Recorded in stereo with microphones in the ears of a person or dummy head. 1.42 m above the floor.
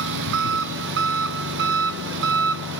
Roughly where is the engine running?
Right.